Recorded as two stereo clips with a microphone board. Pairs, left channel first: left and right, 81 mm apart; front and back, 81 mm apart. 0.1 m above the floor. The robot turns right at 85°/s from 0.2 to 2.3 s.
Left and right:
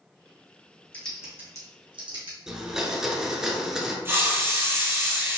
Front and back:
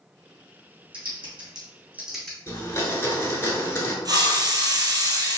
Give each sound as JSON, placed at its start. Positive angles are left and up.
{"t": 0.9, "sound": "typing on a keyboard", "azimuth_deg": 165, "distance_m": 1.5}
{"t": 2.5, "sound": "a blender", "azimuth_deg": -10, "distance_m": 1.1}
{"t": 4.0, "sound": "a hiss", "azimuth_deg": -150, "distance_m": 1.1}